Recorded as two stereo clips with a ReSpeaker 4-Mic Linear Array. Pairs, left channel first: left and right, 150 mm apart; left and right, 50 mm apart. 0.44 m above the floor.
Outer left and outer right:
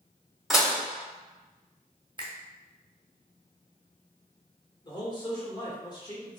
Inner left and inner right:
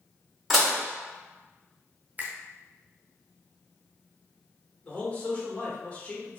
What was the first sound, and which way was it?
Dishes clattering, centre (ahead or behind).